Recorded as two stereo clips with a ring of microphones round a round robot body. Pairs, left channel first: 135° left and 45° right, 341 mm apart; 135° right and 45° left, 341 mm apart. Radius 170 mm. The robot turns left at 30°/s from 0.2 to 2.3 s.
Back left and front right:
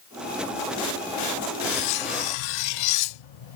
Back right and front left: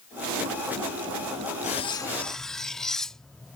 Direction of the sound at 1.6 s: 155° left.